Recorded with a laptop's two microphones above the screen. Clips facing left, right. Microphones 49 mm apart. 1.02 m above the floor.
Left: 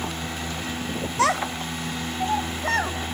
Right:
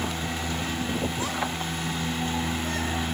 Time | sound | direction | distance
1.2 | a child speaking | 80° left | 0.8 m